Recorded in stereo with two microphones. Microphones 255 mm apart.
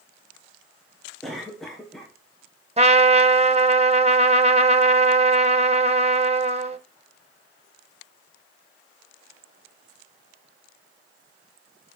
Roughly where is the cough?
Centre.